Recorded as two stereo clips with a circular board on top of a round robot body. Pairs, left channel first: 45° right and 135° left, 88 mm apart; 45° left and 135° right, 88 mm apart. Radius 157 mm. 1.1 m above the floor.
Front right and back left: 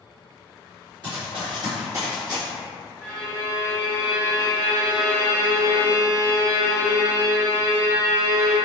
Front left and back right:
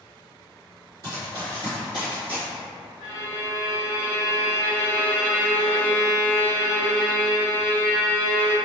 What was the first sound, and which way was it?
Running footsteps, 175° left.